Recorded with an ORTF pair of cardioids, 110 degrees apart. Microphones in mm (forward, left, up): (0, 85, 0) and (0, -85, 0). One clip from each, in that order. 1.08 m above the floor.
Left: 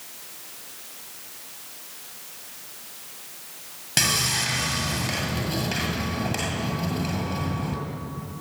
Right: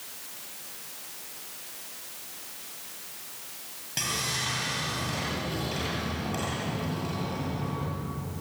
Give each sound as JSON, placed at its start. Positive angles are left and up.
{"t": 4.0, "sound": "sawing", "azimuth_deg": 60, "distance_m": 7.5}